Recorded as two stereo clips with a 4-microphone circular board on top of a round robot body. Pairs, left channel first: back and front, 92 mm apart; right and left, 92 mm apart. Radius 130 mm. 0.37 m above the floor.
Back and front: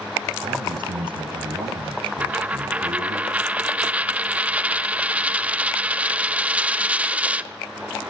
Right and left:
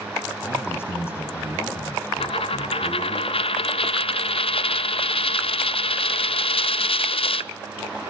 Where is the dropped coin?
75° right, 0.7 m.